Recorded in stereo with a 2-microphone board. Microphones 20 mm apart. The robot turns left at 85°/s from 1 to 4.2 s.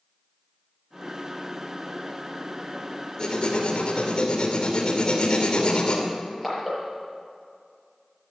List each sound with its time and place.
3.2 s writing: 135° left, 2.5 m; by 6.0 s 50° left, 2.5 m
6.1 s crushing: 10° right (ahead or behind), 5.5 m